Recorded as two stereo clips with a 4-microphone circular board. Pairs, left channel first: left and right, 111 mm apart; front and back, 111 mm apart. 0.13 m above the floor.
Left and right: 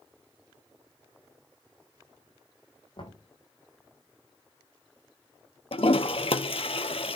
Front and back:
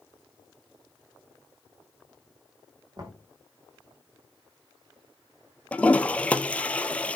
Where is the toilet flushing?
75° left, 0.7 m.